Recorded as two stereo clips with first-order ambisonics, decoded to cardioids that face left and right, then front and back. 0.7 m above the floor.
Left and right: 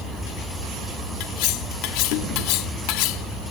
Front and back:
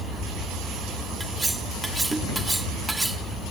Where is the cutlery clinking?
95° left.